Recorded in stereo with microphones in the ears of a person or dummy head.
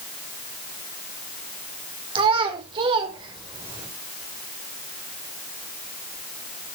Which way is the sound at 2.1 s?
30° right (ahead or behind).